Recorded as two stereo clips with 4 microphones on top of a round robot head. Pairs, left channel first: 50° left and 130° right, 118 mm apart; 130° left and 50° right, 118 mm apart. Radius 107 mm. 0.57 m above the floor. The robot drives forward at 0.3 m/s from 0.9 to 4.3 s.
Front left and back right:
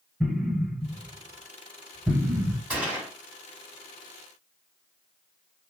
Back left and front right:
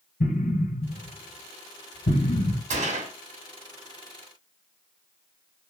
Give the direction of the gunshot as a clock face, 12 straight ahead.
2 o'clock.